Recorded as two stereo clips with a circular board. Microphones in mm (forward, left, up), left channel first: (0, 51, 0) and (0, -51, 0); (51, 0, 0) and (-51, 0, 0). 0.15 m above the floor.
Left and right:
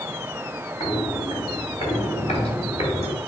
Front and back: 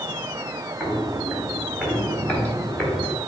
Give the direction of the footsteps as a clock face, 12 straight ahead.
9 o'clock.